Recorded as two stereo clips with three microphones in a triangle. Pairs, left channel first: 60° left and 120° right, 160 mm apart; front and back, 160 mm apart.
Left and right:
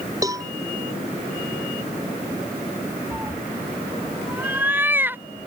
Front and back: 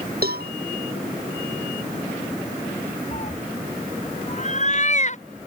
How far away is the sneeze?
I don't hear a sneeze.